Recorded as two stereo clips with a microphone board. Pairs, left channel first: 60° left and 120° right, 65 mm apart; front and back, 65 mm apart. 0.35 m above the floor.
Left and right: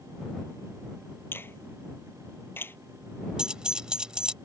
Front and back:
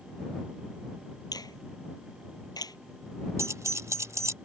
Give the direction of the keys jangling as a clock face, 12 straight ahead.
6 o'clock.